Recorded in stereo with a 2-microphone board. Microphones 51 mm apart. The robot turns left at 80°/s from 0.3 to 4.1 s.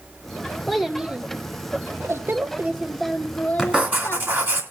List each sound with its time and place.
0.7 s a child speaking: 5° left, 0.7 m; by 4.4 s 90° left, 0.7 m
3.6 s writing: 10° right, 3 m; by 4.6 s 55° right, 3 m